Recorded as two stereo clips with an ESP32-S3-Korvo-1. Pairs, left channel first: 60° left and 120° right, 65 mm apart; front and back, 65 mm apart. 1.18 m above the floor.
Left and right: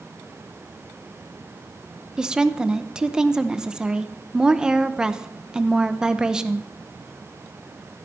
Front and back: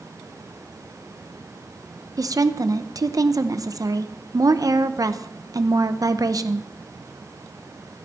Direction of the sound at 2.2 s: 160° left.